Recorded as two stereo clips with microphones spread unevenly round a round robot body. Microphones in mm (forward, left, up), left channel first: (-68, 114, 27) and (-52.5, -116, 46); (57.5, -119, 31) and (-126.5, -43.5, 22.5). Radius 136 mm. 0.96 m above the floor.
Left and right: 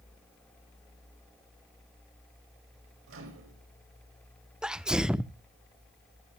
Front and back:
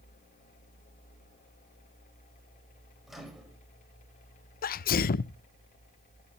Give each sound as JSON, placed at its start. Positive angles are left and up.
{"t": 3.1, "sound": "a microwave", "azimuth_deg": -115, "distance_m": 5.0}
{"t": 4.6, "sound": "a sneeze", "azimuth_deg": 5, "distance_m": 0.5}